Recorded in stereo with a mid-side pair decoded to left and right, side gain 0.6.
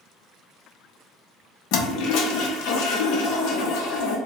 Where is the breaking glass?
No breaking glass in this recording.